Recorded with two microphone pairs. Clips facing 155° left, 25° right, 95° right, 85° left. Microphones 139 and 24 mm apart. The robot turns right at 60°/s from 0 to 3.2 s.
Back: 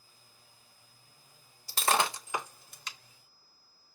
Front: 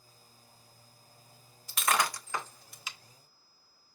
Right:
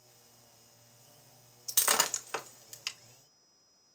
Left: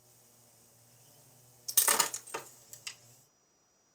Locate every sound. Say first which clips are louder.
1.7 s breaking glass: back 1 dB, right 1 dB; 175° left, 0.7 m; by 3.0 s 105° right, 0.7 m